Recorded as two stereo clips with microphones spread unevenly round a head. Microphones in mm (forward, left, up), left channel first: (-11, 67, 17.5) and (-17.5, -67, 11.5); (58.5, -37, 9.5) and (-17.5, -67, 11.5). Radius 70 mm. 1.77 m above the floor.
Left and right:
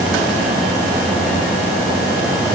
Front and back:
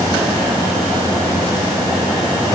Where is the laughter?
I don't hear laughter.